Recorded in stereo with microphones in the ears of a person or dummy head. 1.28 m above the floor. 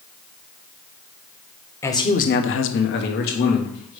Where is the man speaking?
10° left (ahead or behind), 1.0 m; by 4.0 s 45° left (ahead or behind), 2 m.